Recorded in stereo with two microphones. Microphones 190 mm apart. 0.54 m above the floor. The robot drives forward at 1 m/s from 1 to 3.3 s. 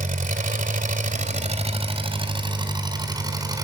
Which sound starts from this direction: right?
An engine running, at 0.0 s.